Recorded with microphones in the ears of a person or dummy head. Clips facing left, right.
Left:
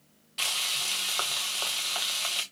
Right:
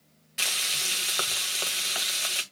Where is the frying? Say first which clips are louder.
Right 1 dB; 25° right (ahead or behind), 1.5 m.